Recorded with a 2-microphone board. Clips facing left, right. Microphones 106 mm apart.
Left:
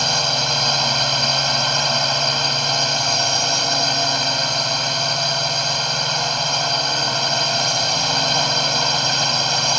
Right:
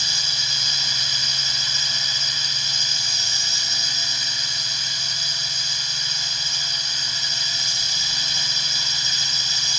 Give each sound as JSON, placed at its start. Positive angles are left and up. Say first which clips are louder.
{"t": 0.0, "sound": "a drone", "louder": "left 14 dB", "side_deg": 65}